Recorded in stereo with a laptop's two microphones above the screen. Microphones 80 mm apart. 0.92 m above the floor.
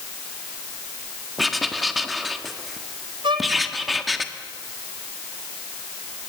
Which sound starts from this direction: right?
A violin, at 3.2 s.